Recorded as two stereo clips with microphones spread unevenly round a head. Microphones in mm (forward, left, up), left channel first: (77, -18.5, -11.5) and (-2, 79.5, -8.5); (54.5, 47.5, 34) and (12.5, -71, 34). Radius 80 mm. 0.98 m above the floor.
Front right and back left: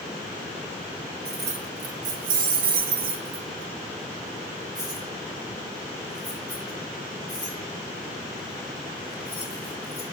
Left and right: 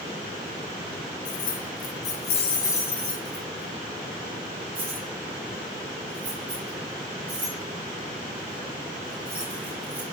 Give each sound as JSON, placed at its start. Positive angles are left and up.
{"t": 1.2, "sound": "keys jangling", "azimuth_deg": 95, "distance_m": 1.6}